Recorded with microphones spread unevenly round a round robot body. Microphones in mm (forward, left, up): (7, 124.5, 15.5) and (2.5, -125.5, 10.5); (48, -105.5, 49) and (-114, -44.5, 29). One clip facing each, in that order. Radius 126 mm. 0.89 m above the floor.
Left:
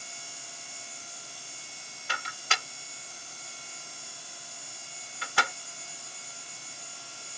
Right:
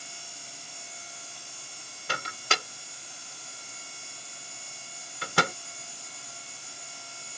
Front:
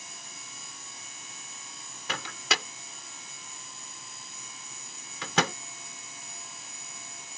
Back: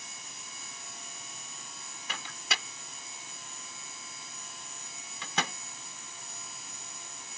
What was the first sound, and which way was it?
A microwave, 40° right.